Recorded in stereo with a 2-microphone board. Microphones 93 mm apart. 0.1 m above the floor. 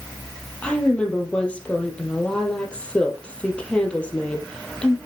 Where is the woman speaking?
10° left (ahead or behind), 2.5 m.